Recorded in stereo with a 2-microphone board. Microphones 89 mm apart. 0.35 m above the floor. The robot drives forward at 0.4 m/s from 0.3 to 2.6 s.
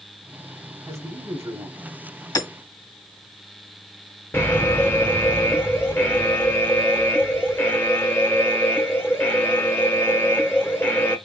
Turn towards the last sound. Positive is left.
turn(degrees=25)  # may be behind; listen again after turning